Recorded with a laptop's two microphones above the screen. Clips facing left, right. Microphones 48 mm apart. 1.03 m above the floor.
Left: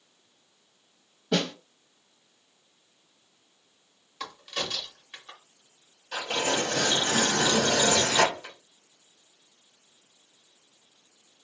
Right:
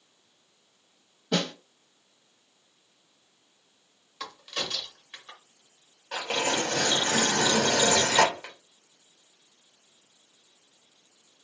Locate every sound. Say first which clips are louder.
1.3 s a snare drum: left 1 dB; centre (ahead or behind), 0.9 m
4.2 s a crack: left 1 dB; centre (ahead or behind), 0.8 m
6.1 s tearing paper: even; 55° right (ahead or behind), 1.3 m